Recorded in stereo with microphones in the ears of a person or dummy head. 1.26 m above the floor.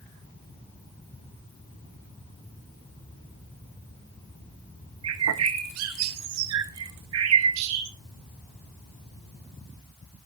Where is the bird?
80° right, 1.1 m.